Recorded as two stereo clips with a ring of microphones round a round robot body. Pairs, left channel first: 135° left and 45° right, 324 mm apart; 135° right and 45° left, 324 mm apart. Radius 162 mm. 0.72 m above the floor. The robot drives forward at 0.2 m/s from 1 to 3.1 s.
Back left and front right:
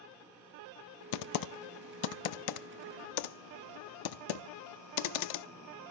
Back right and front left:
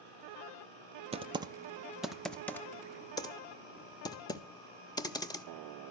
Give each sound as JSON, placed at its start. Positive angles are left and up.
{"t": 1.1, "sound": "typing on a keyboard", "azimuth_deg": 115, "distance_m": 0.5}